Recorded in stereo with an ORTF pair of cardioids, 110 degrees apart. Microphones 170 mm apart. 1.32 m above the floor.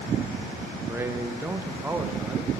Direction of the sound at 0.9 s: 15° right.